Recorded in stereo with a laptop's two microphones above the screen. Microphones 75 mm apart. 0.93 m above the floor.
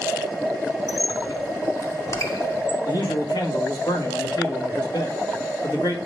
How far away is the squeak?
About 0.9 m.